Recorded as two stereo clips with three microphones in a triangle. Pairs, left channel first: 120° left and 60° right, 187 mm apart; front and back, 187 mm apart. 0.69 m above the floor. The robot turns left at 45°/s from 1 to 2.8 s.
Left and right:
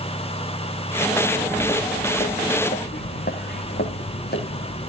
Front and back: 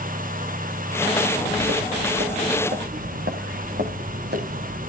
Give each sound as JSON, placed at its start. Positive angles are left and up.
{"t": 1.2, "sound": "footsteps", "azimuth_deg": -140, "distance_m": 3.5}